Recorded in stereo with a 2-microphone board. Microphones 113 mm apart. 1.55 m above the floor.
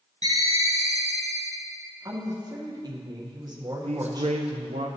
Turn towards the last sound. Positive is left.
turn(degrees=-75)  # may be behind; listen again after turning